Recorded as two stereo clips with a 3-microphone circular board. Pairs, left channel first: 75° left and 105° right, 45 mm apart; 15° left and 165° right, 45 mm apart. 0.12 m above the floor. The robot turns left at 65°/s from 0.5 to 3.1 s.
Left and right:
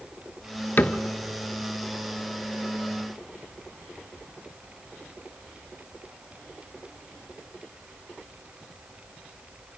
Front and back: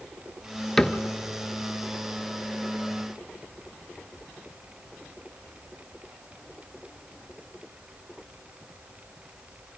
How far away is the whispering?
No whispering in this recording.